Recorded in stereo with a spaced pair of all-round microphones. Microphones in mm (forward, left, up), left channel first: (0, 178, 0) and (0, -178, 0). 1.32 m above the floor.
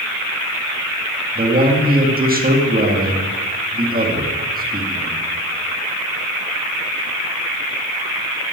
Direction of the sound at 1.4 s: 25° right (ahead or behind).